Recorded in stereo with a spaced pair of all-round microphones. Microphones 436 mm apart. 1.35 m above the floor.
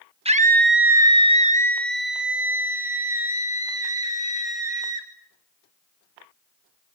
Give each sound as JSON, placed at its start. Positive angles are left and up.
{"t": 0.2, "sound": "a scream", "side_deg": -15, "distance_m": 1.3}